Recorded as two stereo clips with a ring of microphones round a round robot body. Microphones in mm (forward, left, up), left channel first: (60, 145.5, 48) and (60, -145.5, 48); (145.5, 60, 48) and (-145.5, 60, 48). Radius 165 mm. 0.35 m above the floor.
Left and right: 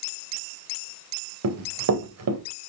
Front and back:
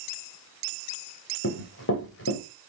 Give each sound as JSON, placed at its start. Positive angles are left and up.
{"t": 1.4, "sound": "running footsteps", "azimuth_deg": -55, "distance_m": 3.0}